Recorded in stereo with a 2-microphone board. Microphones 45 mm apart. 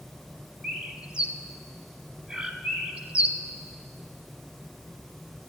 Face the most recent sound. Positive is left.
turn(degrees=-20)  # may be behind; listen again after turning